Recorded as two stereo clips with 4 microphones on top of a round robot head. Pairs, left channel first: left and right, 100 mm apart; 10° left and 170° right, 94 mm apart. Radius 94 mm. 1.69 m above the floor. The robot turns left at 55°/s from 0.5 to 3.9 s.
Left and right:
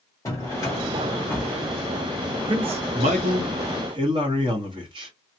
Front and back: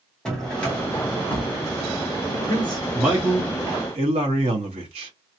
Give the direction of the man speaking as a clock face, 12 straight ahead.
2 o'clock.